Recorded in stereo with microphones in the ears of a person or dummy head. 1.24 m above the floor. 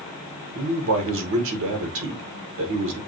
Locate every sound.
0.6 s a man speaking: 70° right (ahead or behind), 1.4 m